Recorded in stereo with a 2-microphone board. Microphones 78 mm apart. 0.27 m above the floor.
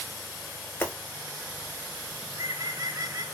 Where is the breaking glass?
25° left (ahead or behind), 1.0 m.